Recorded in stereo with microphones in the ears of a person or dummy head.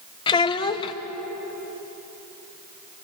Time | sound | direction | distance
0.3 | a child speaking | 25° left (ahead or behind) | 1.0 m